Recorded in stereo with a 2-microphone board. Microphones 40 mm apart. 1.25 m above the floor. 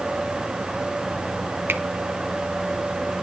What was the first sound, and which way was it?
A finger snap, 65° right (ahead or behind).